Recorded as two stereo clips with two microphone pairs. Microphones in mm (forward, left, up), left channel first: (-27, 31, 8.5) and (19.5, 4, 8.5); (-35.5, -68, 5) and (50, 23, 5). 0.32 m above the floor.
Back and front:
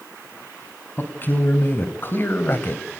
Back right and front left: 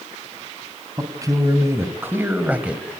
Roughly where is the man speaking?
Left.